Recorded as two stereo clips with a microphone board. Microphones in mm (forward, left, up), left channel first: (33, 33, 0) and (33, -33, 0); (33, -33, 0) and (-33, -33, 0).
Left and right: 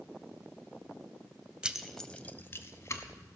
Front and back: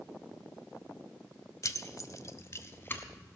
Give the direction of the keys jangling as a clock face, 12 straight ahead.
1 o'clock.